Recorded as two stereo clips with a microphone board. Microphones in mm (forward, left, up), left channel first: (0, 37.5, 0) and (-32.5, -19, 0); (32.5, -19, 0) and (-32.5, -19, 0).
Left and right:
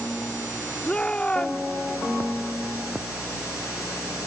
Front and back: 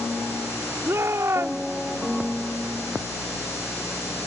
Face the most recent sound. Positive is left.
turn(degrees=135)